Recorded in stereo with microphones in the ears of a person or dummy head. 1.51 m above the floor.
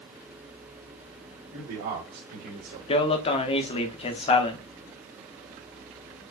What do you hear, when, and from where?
1.5 s a man speaking: 65° right (ahead or behind), 2 m; by 2.8 s 70° right (ahead or behind), 3 m
2.9 s a man speaking: 30° left (ahead or behind), 0.9 m